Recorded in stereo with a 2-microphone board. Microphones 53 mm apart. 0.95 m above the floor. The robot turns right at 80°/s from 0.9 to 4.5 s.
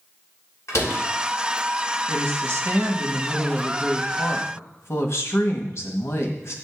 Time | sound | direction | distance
0.7 | a door slam | 70° left (ahead or behind) | 3 m
2.1 | a woman speaking | 120° right | 1.5 m